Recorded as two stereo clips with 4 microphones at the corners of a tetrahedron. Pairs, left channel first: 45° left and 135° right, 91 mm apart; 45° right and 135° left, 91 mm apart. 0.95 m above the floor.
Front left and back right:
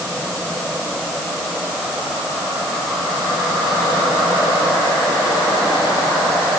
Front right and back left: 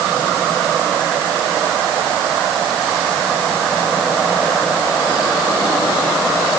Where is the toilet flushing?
I don't hear a toilet flushing.